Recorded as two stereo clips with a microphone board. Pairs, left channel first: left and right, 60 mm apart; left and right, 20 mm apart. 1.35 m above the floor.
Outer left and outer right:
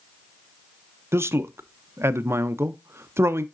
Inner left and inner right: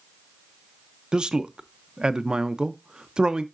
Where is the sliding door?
I don't hear a sliding door.